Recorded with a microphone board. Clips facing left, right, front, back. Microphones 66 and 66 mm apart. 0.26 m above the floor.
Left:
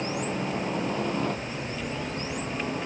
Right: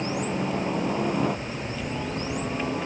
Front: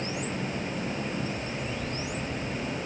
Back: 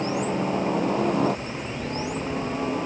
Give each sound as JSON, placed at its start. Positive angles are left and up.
{"t": 0.0, "sound": "a helicopter", "azimuth_deg": -175}